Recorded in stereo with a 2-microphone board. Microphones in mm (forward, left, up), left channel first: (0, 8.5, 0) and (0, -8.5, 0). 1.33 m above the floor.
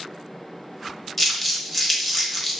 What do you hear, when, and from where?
1.2 s crumpling: 15° left (ahead or behind), 1.0 m